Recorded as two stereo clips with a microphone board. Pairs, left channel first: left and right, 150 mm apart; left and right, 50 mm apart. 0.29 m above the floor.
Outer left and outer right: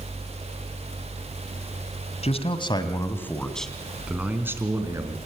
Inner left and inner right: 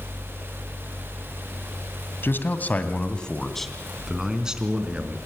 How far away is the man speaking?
About 2 m.